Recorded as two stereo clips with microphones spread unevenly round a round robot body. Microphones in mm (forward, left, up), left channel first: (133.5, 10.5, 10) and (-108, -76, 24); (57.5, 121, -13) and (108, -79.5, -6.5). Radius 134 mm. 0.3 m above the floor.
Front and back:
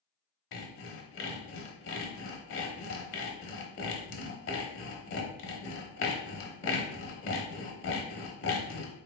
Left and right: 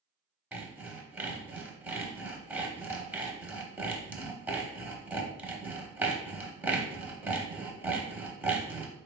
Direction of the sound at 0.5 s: 5° left.